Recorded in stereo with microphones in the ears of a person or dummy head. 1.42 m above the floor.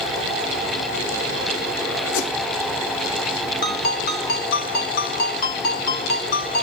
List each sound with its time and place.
2.1 s a whoosh: 80° left, 1.4 m
3.6 s a ringtone: 55° left (ahead or behind), 1.2 m